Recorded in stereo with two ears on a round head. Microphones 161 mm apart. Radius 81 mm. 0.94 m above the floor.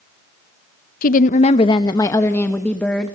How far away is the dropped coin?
I don't hear a dropped coin.